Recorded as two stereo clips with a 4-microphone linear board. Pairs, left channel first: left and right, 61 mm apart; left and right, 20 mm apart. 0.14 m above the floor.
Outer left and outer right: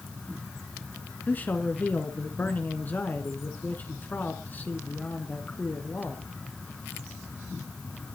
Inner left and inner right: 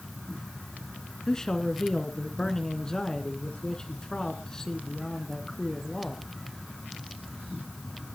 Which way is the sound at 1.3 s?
30° left (ahead or behind).